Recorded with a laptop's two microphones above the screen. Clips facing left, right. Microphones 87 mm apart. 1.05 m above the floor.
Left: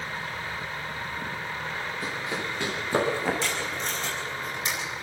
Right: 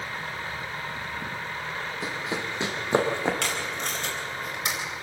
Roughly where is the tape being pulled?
Right.